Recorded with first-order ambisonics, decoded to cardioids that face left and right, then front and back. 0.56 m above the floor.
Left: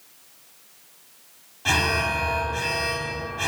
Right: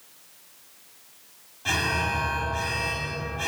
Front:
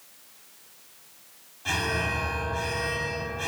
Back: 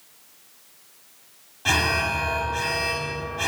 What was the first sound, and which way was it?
An alarm, 155° left.